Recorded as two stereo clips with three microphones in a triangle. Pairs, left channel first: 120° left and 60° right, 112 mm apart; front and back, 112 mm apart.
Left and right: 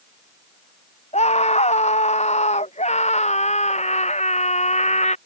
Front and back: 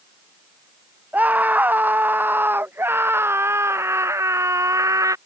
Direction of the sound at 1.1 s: 105° left.